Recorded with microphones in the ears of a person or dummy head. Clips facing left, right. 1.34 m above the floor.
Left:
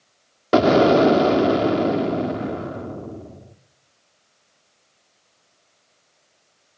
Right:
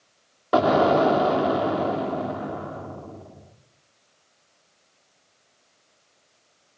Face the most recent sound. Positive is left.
turn(degrees=35)  # may be behind; listen again after turning